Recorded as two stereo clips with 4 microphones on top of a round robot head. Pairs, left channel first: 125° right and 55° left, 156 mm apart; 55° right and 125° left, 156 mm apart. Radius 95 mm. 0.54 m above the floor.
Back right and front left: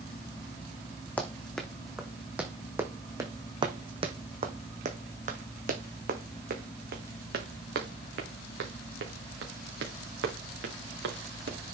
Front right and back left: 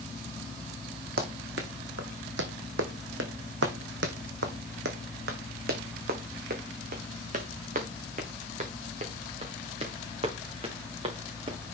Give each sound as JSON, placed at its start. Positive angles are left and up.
{"t": 1.2, "sound": "running footsteps", "azimuth_deg": 155, "distance_m": 2.5}